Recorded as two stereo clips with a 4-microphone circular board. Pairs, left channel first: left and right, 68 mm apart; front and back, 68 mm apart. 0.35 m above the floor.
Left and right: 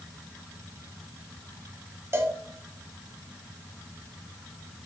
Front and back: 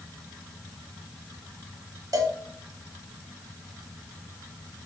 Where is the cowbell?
145° right, 0.7 m.